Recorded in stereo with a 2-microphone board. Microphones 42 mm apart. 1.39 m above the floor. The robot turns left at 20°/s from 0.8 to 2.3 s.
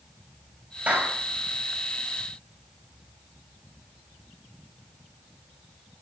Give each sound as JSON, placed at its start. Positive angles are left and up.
{"t": 0.9, "sound": "a clap", "side_deg": -40, "distance_m": 6.0}